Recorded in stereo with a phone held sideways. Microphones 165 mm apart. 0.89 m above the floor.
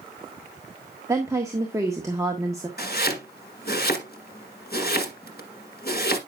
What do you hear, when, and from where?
1.1 s a woman speaking: 20° right (ahead or behind), 1.4 m
2.8 s chopping: 70° left (ahead or behind), 1.8 m